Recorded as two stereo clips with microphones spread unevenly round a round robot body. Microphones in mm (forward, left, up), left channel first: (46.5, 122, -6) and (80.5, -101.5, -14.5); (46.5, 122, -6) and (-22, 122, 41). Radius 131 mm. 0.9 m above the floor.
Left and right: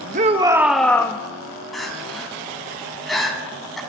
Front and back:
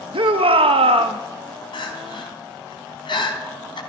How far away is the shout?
About 0.8 m.